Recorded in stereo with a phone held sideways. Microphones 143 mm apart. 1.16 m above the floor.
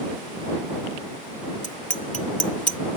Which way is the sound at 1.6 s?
60° left (ahead or behind).